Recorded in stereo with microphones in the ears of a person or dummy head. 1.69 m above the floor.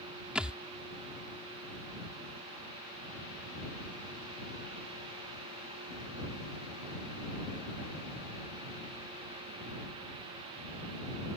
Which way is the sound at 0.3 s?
5° right (ahead or behind).